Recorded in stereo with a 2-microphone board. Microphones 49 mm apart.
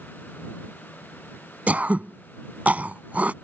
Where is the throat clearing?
35° right (ahead or behind).